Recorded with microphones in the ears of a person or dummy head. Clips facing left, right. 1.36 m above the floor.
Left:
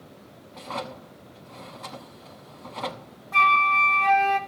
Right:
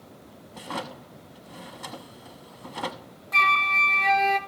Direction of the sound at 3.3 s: 30° right (ahead or behind).